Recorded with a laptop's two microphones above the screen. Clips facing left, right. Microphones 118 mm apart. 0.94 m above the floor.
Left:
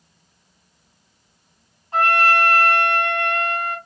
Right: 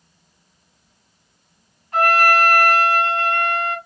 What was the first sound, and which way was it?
A trumpet, 30° left (ahead or behind).